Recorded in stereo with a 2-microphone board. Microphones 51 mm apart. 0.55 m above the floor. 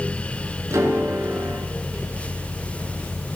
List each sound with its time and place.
0.7 s a piano: 75° right (ahead or behind), 5 m